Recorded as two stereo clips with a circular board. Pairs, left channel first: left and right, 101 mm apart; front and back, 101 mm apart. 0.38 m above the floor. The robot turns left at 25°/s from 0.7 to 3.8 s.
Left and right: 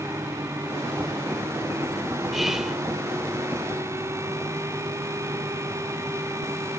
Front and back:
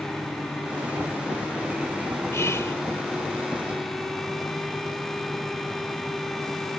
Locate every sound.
2.3 s whispering: 5° right; by 2.8 s 15° right